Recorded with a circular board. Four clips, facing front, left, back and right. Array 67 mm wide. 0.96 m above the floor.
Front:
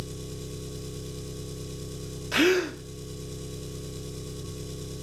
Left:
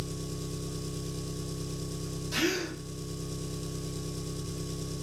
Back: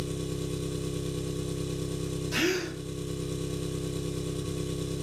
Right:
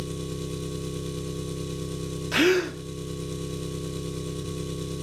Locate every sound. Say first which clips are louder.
0.0 s an engine running: right 5 dB, back 5 dB; 120° right, 0.8 m
2.3 s a gasp: right 9 dB, front 7 dB; 50° right, 0.7 m